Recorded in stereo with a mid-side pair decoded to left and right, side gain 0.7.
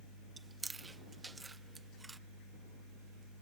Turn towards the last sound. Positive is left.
turn(degrees=-15)